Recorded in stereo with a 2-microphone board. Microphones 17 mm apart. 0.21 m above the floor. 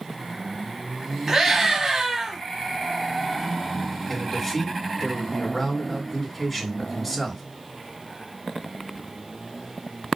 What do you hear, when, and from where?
1.3 s a scream: 25° right (ahead or behind), 1.1 m
4.1 s a man speaking: 5° left (ahead or behind), 1.8 m